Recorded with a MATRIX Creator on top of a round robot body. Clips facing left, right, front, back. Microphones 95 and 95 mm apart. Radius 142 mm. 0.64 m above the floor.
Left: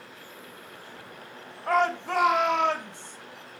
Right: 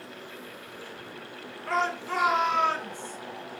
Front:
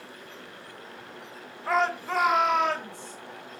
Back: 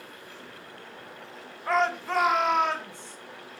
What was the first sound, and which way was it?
A shout, 85° left.